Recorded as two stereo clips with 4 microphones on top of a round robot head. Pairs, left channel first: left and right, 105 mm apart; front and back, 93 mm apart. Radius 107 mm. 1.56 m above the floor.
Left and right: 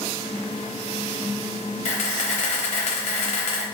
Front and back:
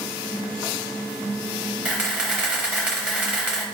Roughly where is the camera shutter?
Left.